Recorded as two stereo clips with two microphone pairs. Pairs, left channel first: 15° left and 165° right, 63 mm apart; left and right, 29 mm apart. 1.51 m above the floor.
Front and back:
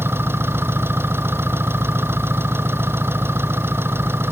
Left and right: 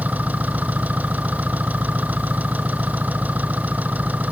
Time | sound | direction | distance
0.0 | an engine running | 110° right | ?